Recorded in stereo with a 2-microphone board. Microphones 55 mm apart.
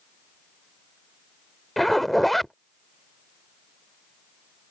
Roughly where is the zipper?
Centre.